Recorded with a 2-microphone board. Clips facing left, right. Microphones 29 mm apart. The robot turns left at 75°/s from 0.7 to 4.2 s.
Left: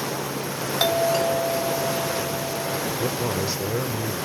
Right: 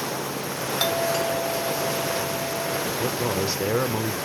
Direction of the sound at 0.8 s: 20° left (ahead or behind).